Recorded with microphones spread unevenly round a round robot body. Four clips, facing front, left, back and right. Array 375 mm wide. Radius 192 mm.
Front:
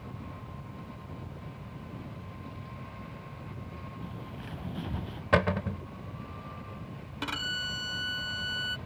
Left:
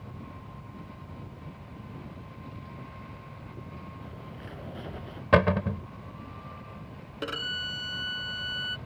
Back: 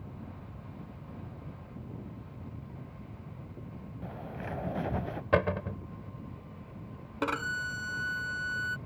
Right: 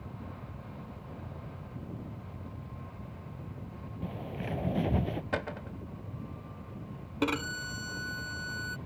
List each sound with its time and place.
4.0 s a bird: 110° right
5.3 s a cupboard door: 80° left
7.2 s a violin: 100° right